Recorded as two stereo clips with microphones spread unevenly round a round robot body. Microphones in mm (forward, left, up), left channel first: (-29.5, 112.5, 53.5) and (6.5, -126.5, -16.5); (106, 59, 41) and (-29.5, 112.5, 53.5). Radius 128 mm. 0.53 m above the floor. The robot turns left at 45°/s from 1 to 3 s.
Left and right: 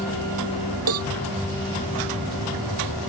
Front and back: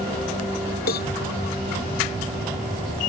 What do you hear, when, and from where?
0.9 s a cowbell: 50° right; by 1.1 s 55° right